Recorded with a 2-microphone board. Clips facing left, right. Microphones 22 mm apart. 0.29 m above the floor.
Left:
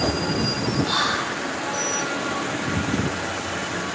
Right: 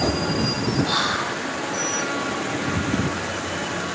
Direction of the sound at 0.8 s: 10° right (ahead or behind).